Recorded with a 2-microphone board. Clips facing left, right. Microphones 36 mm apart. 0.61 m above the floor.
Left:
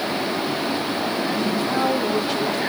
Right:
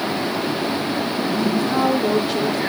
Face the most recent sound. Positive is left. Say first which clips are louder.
# right 2 dB
turn(degrees=-5)  # may be behind; listen again after turning